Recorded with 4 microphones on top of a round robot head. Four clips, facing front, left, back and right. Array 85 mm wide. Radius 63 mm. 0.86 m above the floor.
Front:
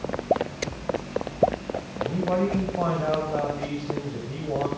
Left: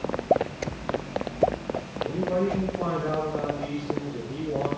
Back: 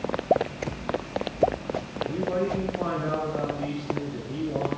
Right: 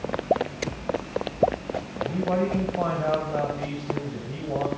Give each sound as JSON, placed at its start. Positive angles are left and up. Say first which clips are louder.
{"t": 2.0, "sound": "a man speaking", "louder": "right 1 dB, front 3 dB", "azimuth_deg": -40, "distance_m": 4.5}